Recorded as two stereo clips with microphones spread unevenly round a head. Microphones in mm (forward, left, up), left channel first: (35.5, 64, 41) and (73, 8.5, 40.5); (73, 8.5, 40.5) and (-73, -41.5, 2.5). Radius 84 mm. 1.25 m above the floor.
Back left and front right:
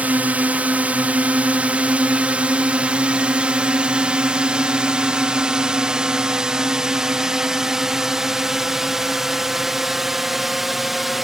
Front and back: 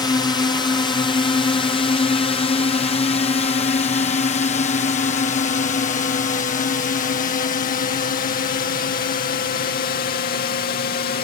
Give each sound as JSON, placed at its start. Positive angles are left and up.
{"t": 0.0, "sound": "a drone", "azimuth_deg": -40}